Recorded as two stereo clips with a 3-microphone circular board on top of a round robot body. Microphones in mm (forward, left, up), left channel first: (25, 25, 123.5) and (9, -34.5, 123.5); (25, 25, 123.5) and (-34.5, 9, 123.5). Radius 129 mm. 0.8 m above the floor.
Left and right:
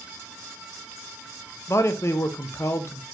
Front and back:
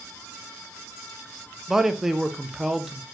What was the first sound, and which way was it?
A man speaking, 115° left.